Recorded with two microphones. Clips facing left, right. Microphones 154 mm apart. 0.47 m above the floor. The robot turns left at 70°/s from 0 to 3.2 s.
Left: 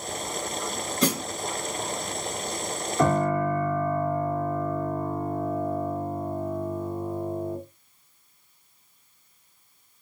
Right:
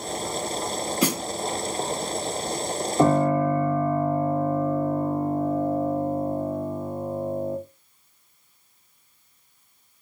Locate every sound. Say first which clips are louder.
1.0 s a snare drum: even; 10° right (ahead or behind), 1.2 m; by 1.2 s 25° right (ahead or behind), 1.2 m
3.0 s a piano: right 3 dB; 25° right (ahead or behind), 0.8 m